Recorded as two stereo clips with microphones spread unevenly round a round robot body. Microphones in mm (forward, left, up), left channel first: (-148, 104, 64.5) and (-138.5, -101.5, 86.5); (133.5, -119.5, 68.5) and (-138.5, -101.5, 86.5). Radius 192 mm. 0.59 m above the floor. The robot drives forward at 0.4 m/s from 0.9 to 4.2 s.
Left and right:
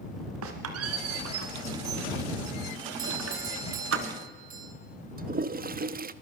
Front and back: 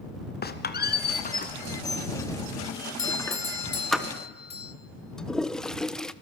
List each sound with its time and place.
0.4 s a squeak: 60° right, 2 m; by 4.0 s 95° right, 1.9 m
3.0 s a doorbell: 35° right, 2.5 m; by 4.8 s 45° right, 2 m
5.2 s a toilet flushing: 85° right, 1.0 m